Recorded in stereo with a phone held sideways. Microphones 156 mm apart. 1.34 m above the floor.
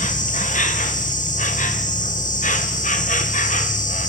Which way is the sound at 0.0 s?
55° left (ahead or behind).